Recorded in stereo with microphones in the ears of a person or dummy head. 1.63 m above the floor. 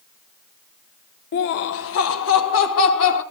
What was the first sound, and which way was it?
Laughter, 40° left (ahead or behind).